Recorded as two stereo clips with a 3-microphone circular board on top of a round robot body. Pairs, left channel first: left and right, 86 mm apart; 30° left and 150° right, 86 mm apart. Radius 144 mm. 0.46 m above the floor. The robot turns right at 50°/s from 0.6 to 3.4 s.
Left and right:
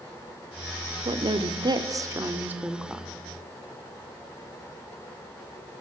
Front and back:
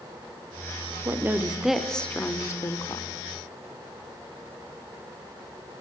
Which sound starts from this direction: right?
A woman speaking, at 1.1 s.